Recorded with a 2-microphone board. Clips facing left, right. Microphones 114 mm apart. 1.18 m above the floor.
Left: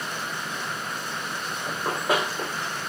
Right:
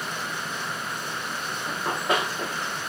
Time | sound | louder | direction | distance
1.7 | running footsteps | left 1 dB | 10° left (ahead or behind) | 7.5 m